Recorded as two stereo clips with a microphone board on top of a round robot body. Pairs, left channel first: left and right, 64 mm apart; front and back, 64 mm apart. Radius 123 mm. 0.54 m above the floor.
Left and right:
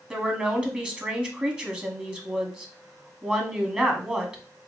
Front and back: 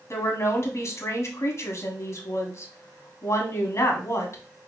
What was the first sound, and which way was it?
A woman speaking, 25° right.